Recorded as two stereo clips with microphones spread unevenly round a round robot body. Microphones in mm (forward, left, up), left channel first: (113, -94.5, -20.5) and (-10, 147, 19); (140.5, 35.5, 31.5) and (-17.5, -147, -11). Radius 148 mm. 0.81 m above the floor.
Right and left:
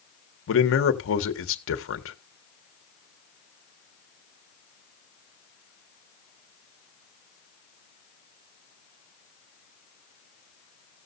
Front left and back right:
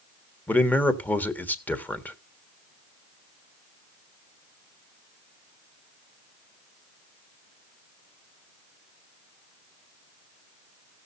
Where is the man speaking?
40° right, 1.5 m.